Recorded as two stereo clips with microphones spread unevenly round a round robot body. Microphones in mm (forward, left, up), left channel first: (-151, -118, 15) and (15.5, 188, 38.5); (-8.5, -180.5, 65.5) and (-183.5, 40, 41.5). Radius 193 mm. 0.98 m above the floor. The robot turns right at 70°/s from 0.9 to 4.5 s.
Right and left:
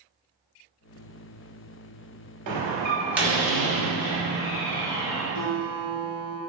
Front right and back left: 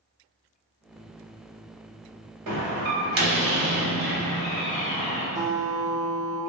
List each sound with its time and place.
2.5 s a door slam: 100° left, 0.8 m; by 5.2 s 120° right, 0.8 m
5.3 s a guitar: 115° left, 1.5 m